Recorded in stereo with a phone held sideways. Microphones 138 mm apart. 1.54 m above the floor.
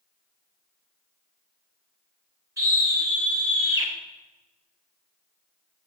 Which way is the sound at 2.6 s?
25° right (ahead or behind).